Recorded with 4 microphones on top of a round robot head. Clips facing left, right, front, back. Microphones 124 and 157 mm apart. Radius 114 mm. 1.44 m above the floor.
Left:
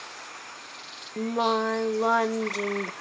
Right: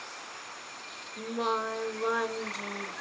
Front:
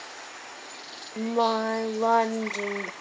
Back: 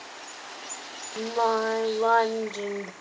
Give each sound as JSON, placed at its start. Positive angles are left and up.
{"t": 1.2, "sound": "singing", "azimuth_deg": 80, "distance_m": 0.8}